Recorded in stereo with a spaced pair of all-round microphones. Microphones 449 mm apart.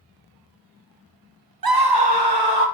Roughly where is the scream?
Right.